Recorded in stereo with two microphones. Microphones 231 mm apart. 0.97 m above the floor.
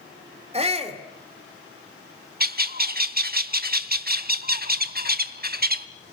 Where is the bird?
40° right (ahead or behind), 1.0 m.